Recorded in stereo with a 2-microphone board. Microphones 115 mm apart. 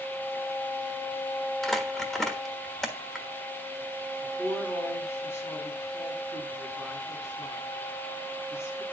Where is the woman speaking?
25° left (ahead or behind), 6 m.